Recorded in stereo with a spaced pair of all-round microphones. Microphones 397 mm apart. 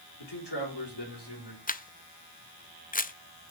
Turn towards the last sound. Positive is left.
turn(degrees=20)  # may be behind; listen again after turning